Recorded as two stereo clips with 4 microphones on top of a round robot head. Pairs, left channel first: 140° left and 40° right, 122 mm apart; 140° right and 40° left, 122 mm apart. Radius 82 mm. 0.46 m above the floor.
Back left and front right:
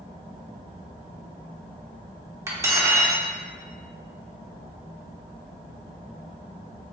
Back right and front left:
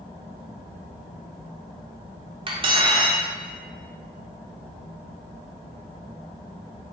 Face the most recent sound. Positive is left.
turn(degrees=20)